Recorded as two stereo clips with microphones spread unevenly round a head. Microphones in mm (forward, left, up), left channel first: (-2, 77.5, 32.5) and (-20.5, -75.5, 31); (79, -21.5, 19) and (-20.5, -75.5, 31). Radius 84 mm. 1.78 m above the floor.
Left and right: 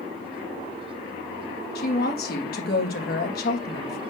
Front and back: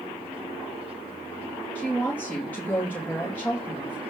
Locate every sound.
1.8 s a woman speaking: 110° left, 3 m